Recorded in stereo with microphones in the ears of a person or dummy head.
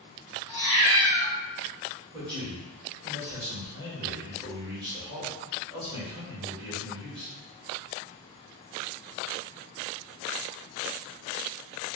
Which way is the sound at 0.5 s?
15° left (ahead or behind).